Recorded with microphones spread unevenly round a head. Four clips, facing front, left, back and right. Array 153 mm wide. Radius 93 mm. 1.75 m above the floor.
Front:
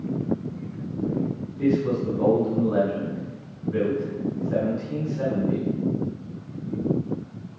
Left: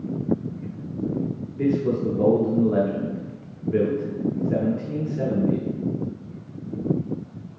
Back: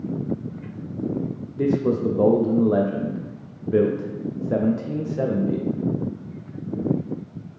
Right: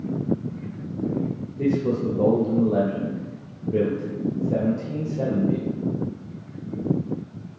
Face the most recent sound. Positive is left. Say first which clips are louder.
# even, back 2 dB
turn(degrees=165)